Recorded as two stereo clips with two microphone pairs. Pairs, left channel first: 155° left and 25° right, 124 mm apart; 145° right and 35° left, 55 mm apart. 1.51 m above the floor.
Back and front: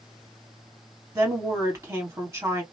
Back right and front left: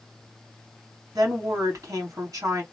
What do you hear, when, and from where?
1.1 s a woman speaking: 40° left, 1.9 m